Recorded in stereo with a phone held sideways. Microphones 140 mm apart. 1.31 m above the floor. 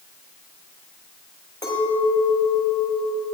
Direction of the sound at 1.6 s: 30° left (ahead or behind).